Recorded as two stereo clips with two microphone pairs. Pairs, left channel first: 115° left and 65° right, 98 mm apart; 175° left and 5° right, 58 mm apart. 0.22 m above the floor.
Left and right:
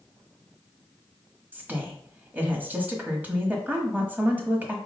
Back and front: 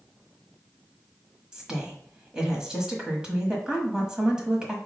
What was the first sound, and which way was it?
A woman speaking, 45° right.